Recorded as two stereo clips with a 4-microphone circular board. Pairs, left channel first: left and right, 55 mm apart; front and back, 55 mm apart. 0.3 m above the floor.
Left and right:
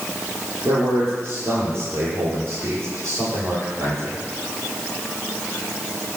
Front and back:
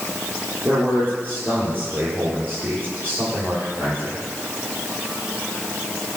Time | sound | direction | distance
0.7 | a man speaking | 130° right | 8 m